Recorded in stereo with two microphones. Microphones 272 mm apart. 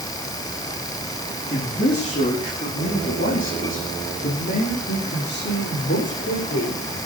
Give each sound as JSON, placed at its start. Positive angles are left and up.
{"t": 1.5, "sound": "a man speaking", "side_deg": 35, "distance_m": 6.0}